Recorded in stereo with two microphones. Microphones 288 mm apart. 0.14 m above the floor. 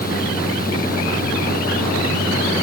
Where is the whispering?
No whispering in this recording.